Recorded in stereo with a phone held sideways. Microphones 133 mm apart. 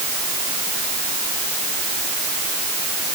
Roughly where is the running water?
No running water in this recording.